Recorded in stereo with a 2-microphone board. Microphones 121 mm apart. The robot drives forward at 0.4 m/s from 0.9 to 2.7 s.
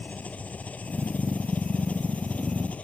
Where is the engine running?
10° left (ahead or behind).